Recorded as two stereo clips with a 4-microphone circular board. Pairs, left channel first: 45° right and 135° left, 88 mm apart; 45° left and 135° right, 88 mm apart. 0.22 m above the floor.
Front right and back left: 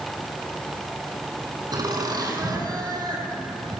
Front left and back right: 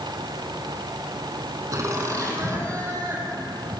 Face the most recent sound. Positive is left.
turn(degrees=170)